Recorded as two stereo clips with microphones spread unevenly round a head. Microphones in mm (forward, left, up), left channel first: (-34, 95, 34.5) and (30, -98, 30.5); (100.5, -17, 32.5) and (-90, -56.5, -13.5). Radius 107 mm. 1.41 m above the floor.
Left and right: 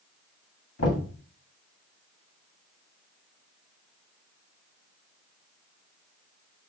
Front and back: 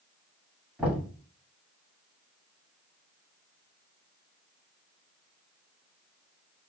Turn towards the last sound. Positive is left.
turn(degrees=100)